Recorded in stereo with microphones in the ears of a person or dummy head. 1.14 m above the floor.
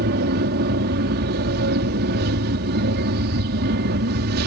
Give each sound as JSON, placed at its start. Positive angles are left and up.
{"t": 0.0, "sound": "an aircraft", "side_deg": -55}